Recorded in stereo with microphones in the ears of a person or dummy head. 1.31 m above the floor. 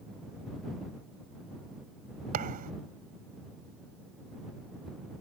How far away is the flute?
I don't hear a flute.